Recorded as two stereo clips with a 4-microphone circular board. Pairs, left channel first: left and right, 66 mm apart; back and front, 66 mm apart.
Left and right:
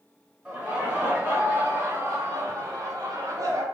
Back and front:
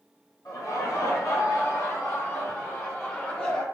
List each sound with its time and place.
0.5 s laughter: 175° right, 1.5 m; by 3.6 s 105° right, 2 m